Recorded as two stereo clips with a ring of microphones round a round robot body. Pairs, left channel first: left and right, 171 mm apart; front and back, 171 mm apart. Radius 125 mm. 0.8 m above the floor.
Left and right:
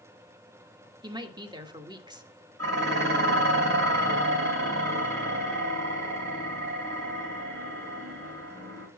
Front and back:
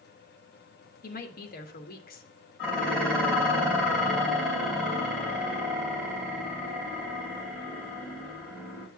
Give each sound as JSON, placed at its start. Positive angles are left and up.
{"t": 1.0, "sound": "a woman speaking", "azimuth_deg": -30, "distance_m": 1.4}
{"t": 2.6, "sound": "dishes clattering", "azimuth_deg": -85, "distance_m": 3.5}